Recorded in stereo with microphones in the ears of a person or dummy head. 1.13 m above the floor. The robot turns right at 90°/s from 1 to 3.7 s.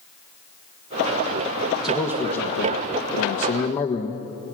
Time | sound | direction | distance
1.8 | a man speaking | straight ahead | 1.5 m